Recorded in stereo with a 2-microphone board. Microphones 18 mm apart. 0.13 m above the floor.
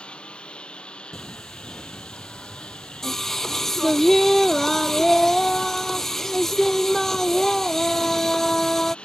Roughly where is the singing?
Left.